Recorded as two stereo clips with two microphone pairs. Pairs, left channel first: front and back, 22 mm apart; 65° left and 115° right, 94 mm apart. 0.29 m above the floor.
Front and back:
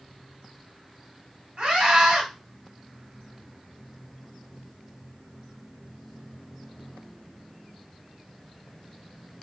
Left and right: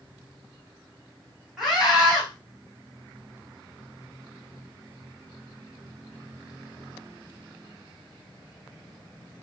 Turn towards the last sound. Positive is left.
turn(degrees=160)